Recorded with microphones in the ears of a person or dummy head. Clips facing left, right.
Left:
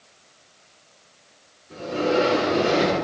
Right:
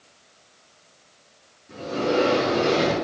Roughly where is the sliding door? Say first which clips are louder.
Left 1 dB; right.